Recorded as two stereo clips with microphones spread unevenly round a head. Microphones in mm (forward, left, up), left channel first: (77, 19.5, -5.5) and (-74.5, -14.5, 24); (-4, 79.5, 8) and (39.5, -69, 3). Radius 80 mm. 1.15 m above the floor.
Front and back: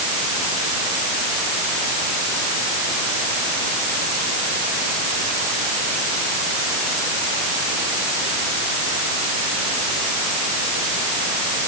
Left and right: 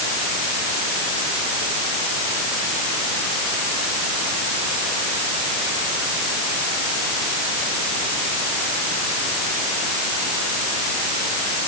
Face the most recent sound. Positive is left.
No sound to turn to.